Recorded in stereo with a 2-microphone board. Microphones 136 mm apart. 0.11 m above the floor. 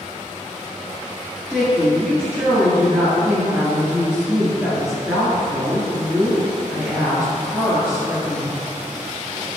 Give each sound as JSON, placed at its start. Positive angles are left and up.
{"t": 1.5, "sound": "a woman speaking", "side_deg": -10, "distance_m": 1.9}